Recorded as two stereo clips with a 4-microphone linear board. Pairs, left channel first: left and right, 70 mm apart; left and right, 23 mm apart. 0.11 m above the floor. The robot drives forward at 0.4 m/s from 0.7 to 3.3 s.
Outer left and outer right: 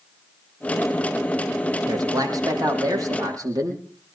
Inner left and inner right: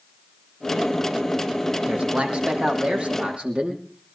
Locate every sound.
1.9 s a man speaking: 60° right (ahead or behind), 6 m; by 3.8 s 55° right (ahead or behind), 6.5 m